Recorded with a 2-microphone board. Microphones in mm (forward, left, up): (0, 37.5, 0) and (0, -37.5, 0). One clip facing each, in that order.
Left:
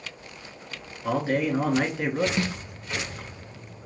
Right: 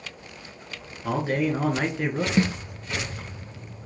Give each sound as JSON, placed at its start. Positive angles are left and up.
{"t": 1.0, "sound": "a man speaking", "side_deg": 0, "distance_m": 1.1}
{"t": 2.4, "sound": "a snare drum", "side_deg": -25, "distance_m": 0.6}